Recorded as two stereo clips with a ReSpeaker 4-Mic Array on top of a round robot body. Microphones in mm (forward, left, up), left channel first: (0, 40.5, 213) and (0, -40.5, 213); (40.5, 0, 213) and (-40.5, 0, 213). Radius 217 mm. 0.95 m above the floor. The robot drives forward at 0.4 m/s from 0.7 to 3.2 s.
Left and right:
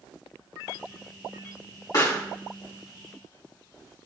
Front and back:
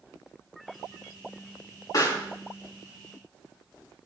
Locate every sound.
1.9 s a pop: 45° left, 4.5 m